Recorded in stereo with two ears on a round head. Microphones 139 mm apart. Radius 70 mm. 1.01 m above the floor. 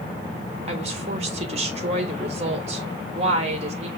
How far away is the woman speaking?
About 1.2 m.